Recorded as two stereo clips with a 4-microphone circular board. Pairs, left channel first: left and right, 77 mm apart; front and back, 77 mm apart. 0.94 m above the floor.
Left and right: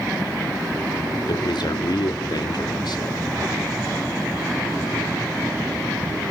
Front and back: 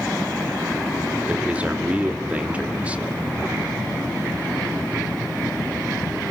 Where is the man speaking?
110° left, 2 m.